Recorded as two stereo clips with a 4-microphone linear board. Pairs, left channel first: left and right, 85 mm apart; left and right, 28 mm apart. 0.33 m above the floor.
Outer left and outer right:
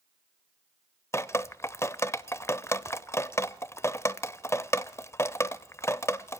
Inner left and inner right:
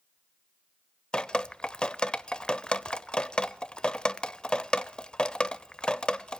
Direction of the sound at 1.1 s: 30° left (ahead or behind).